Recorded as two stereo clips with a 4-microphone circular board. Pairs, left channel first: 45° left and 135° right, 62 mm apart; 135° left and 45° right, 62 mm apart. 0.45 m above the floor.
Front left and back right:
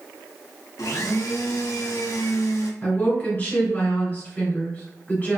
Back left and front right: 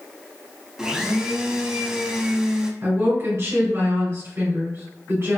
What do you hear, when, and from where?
0.8 s a blender: 30° left, 0.5 m
2.8 s a woman speaking: 15° right, 2.0 m